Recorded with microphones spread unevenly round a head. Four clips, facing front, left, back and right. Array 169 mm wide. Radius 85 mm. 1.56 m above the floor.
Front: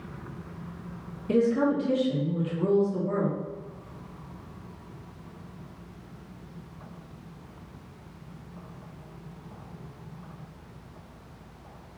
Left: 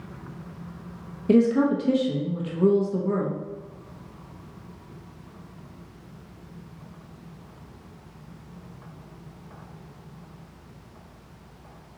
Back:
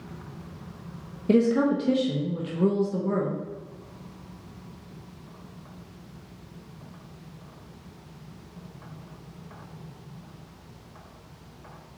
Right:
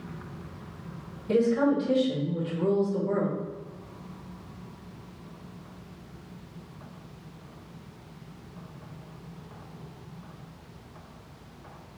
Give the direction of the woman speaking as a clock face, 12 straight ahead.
7 o'clock.